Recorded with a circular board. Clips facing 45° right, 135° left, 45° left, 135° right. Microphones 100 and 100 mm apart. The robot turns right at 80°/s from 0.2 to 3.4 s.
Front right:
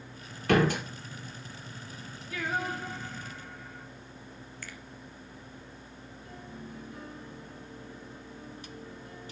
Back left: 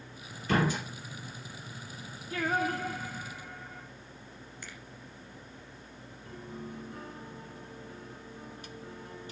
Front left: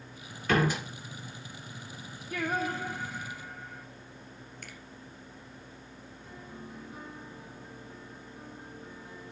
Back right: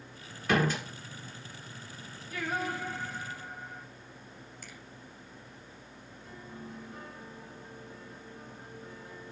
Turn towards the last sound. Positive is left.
turn(degrees=125)